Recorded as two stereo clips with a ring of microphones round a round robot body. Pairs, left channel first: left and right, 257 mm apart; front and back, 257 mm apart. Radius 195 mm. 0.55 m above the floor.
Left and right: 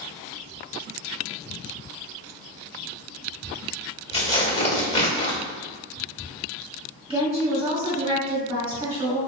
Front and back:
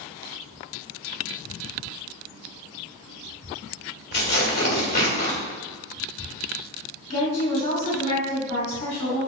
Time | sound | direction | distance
4.1 | tearing paper | 25° left | 1.6 m
7.1 | a woman speaking | 20° right | 1.8 m